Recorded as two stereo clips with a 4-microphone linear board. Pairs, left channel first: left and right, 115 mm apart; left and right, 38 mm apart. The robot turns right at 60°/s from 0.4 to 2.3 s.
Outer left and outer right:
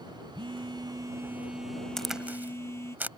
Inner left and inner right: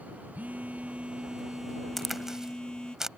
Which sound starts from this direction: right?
A phone buzzing, at 0.3 s.